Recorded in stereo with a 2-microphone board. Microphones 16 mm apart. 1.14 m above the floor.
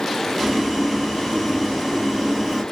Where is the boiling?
25° right (ahead or behind), 2 m.